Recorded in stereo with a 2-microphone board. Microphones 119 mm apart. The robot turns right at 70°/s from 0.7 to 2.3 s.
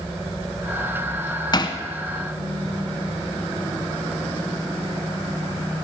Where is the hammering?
40° left (ahead or behind), 1.1 m.